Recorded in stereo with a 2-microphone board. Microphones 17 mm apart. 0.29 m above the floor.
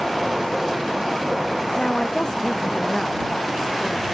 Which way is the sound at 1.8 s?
50° left (ahead or behind).